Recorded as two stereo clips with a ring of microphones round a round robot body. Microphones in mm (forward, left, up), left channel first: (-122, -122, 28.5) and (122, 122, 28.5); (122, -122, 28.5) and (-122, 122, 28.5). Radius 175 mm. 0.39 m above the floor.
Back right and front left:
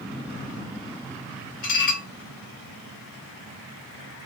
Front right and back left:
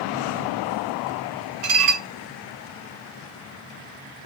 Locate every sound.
1.6 s dishes clattering: 160° left, 1.7 m